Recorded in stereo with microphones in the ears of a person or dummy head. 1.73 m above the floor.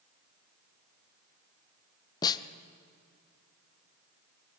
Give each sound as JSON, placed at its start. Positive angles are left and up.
{"t": 2.2, "sound": "a snare drum", "side_deg": 25, "distance_m": 0.8}